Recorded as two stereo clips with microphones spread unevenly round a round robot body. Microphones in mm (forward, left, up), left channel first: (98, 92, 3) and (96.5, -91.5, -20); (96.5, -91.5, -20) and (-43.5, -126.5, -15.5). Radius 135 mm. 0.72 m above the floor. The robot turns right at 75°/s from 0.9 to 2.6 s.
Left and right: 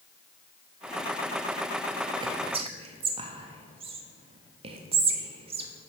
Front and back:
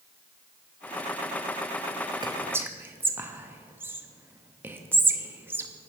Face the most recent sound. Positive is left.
turn(degrees=-100)